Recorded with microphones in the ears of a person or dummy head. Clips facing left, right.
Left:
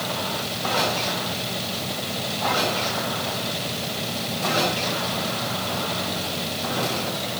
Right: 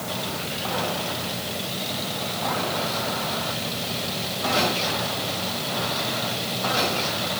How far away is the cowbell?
No cowbell in this recording.